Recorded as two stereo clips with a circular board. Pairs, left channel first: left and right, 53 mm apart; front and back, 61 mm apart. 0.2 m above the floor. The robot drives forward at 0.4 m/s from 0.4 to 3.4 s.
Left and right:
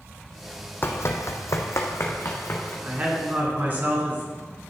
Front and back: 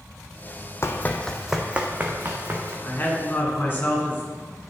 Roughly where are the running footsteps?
Ahead left.